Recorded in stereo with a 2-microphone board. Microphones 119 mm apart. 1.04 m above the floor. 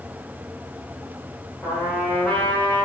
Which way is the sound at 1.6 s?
10° left (ahead or behind).